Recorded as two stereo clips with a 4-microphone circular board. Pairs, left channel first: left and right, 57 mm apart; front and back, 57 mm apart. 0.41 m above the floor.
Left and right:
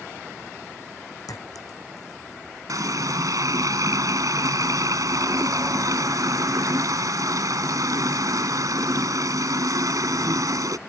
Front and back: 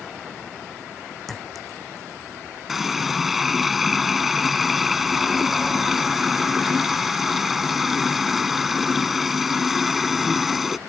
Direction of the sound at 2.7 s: 95° right.